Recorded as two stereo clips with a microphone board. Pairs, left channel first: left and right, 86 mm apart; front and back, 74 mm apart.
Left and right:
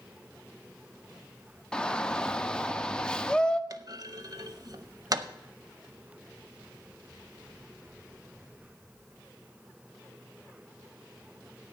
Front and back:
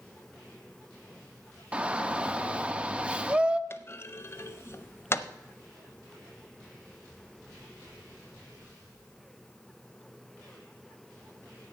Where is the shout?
145° left, 0.6 m.